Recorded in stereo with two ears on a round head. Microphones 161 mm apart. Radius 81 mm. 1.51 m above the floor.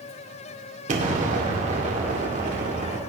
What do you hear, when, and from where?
0.9 s an explosion: 45° right (ahead or behind), 2 m